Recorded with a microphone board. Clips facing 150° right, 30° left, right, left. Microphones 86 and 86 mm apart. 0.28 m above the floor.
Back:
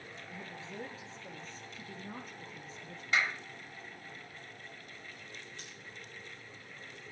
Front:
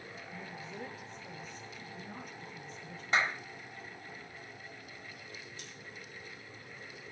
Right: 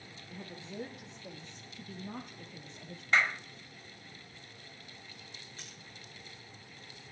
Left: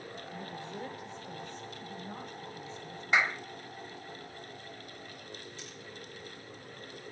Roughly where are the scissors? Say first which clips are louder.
Front 1 dB, left 5 dB; behind right.